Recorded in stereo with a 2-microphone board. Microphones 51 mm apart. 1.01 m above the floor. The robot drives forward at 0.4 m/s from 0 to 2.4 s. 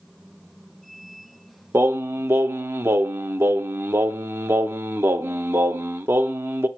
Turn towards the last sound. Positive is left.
turn(degrees=-55)  # may be behind; listen again after turning